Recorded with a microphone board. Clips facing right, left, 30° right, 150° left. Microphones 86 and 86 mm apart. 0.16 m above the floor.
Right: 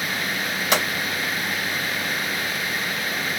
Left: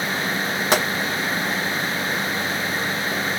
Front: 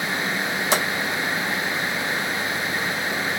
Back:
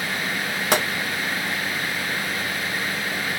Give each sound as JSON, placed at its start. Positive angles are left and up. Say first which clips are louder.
{"t": 0.7, "sound": "a pop", "louder": "left 2 dB, back 2 dB", "azimuth_deg": 135, "distance_m": 1.9}